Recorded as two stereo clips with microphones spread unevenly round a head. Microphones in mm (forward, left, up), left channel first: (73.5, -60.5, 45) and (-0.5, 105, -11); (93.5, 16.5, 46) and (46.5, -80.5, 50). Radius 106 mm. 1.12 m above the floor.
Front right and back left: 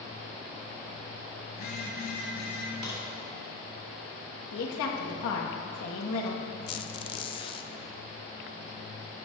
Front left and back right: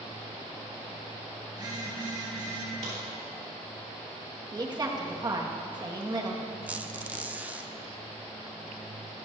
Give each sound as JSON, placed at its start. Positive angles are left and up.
{"t": 1.5, "sound": "a phone buzzing", "azimuth_deg": -70, "distance_m": 4.5}
{"t": 2.8, "sound": "a crack", "azimuth_deg": -160, "distance_m": 3.5}
{"t": 4.5, "sound": "a woman speaking", "azimuth_deg": -65, "distance_m": 1.8}
{"t": 6.7, "sound": "a squeak", "azimuth_deg": -45, "distance_m": 0.5}